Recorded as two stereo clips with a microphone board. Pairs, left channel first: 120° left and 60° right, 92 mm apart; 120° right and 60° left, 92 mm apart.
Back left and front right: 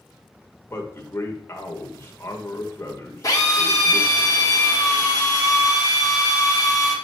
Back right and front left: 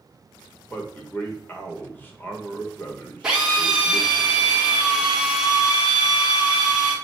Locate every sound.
0.7 s a man speaking: 175° left, 1.2 m
3.2 s a drill: 135° left, 1.6 m